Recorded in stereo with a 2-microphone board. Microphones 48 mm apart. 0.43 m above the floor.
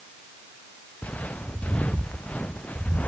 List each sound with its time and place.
1.0 s footsteps: 30° left (ahead or behind)